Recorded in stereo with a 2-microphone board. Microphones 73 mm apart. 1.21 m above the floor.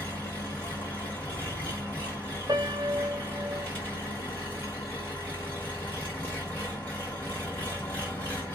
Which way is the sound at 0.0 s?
20° left (ahead or behind).